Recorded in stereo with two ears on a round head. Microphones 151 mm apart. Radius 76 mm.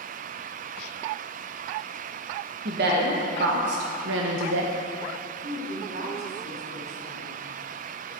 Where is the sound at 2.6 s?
65° right (ahead or behind), 1.7 m; by 4.7 s 70° right (ahead or behind), 0.8 m.